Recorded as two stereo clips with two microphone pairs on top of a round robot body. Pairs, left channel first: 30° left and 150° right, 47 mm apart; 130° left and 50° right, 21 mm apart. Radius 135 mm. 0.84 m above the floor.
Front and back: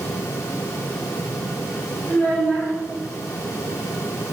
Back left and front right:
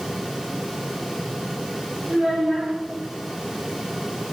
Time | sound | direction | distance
2.1 | a child speaking | 35° right | 3.5 m